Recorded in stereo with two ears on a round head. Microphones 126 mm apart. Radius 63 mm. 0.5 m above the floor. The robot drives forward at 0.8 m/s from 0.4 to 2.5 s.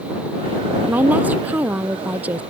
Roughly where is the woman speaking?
Centre.